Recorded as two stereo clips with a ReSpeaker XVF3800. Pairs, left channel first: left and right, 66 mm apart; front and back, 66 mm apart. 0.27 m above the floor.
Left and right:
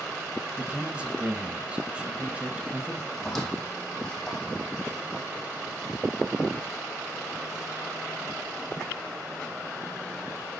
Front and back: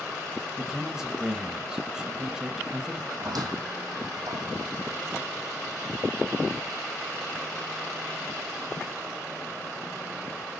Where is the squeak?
175° left, 3 m.